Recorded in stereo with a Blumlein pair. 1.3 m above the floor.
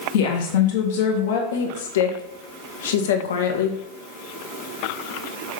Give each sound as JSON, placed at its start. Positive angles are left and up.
{"t": 0.1, "sound": "a woman speaking", "azimuth_deg": 55, "distance_m": 1.8}
{"t": 1.5, "sound": "a woman speaking", "azimuth_deg": 60, "distance_m": 1.5}